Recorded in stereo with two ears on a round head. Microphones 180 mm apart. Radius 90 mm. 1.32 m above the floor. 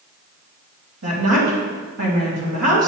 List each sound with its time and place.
1.0 s a woman speaking: 80° right, 3 m